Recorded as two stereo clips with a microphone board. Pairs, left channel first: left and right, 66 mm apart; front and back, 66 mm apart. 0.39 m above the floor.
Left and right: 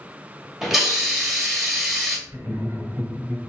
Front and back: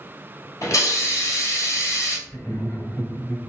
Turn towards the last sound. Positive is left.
turn(degrees=-35)